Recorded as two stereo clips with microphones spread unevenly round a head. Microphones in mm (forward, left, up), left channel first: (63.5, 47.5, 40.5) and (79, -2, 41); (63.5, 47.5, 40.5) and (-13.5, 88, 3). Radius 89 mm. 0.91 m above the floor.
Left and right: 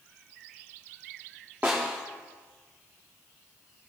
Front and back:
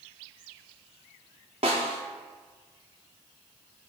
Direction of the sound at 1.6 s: 150° right.